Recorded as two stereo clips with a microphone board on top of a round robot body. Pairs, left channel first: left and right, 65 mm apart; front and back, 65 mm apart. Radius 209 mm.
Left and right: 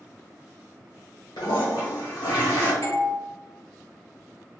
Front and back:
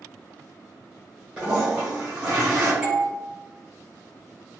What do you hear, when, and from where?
1.4 s a toilet flushing: 110° left, 1.3 m
2.8 s a doorbell: 110° left, 1.9 m